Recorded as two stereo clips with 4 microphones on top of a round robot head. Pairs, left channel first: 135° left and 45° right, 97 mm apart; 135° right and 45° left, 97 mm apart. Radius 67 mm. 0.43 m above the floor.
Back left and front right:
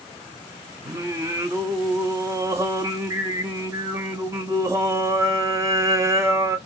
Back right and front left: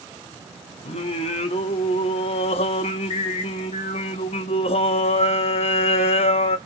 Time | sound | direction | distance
0.8 | singing | 110° right | 0.6 m